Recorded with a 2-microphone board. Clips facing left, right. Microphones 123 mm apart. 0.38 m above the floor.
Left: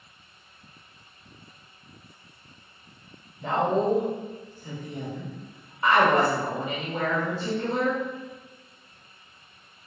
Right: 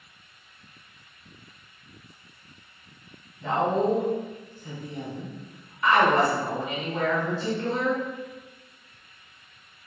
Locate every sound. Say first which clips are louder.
3.4 s a woman speaking: even; 30° left (ahead or behind), 1.0 m